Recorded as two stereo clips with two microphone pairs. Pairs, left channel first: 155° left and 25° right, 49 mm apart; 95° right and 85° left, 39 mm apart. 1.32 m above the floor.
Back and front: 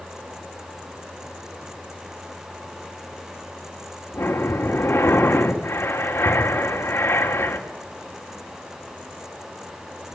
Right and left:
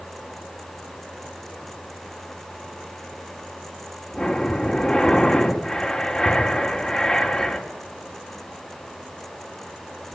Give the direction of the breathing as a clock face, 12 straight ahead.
6 o'clock.